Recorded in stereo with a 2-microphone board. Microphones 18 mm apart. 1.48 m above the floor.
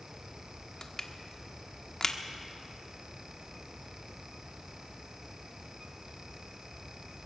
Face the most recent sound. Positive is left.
turn(degrees=35)  # may be behind; listen again after turning